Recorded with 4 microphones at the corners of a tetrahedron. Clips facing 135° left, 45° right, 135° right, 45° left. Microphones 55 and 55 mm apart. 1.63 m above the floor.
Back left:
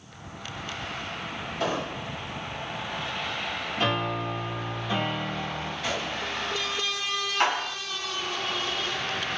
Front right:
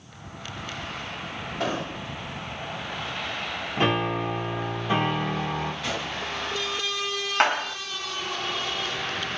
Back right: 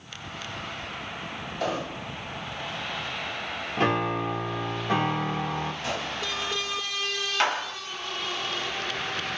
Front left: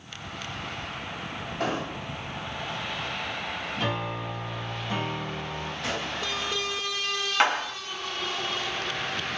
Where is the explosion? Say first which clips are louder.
Even, even; 5° left, 2.5 m.